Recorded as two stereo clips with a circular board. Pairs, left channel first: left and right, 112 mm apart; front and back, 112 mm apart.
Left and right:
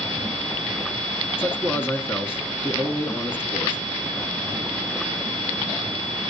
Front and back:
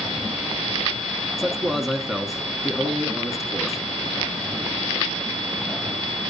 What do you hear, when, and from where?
1.4 s a man speaking: 100° left, 1.3 m